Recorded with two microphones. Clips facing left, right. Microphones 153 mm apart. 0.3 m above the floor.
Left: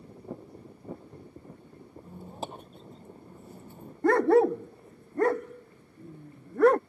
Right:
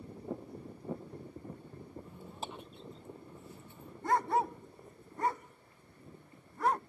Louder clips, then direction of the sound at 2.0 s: Left 9 dB; 45° left (ahead or behind).